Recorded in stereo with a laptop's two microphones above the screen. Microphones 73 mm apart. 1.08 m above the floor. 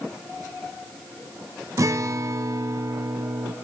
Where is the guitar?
45° right (ahead or behind), 0.7 m.